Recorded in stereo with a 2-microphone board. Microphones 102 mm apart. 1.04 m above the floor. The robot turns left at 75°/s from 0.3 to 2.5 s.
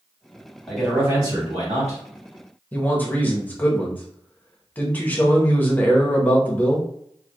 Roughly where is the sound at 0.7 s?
Ahead.